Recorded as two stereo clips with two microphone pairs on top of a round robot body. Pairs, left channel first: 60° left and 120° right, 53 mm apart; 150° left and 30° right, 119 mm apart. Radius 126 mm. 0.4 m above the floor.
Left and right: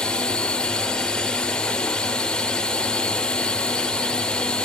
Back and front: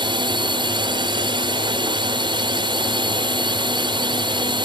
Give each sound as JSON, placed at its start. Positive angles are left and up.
{"t": 0.0, "sound": "a drone", "azimuth_deg": 0}